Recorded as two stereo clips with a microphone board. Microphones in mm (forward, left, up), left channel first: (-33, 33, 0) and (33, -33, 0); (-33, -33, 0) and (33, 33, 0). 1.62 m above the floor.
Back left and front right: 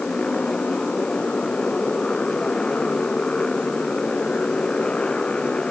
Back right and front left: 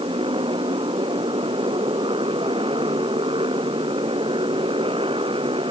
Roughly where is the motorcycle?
Ahead left.